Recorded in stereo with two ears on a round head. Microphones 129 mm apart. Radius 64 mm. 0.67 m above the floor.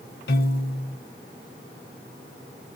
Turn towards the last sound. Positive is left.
turn(degrees=75)  # may be behind; listen again after turning